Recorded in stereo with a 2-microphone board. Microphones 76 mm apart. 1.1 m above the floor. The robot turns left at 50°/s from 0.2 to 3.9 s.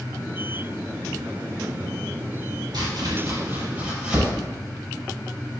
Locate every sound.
2.7 s chopping: 70° right (ahead or behind), 4 m; by 4.3 s 15° right (ahead or behind), 4 m